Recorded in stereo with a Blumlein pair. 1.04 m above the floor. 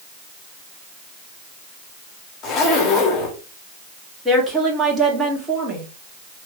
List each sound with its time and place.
2.4 s a zipper: 25° left, 1.5 m
4.2 s a woman speaking: 15° right, 2 m